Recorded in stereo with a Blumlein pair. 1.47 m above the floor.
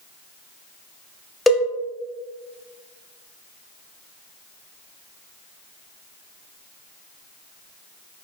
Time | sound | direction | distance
1.5 | a cowbell | 5° left | 0.6 m